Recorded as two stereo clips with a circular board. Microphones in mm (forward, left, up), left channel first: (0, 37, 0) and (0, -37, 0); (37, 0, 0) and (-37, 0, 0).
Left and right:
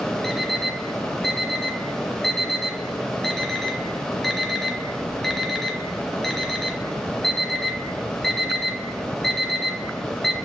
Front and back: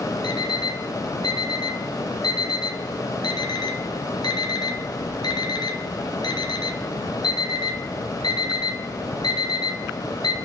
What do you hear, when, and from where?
0.2 s an alarm clock: 5° left, 2 m